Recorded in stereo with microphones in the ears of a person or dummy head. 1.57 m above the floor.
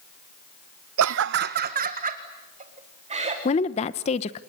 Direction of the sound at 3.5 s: 35° left (ahead or behind).